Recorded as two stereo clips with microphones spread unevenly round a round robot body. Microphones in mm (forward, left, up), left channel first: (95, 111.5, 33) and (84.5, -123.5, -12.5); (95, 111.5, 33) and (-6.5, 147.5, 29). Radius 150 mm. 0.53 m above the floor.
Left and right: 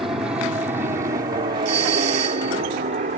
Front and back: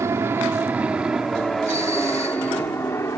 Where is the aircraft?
160° right; by 3.2 s 75° right.